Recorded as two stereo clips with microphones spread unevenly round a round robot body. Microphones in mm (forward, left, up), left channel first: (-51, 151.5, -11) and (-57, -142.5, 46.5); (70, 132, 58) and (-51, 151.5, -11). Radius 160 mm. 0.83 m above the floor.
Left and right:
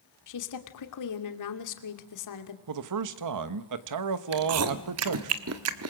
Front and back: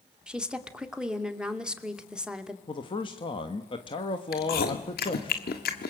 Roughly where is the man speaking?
Right.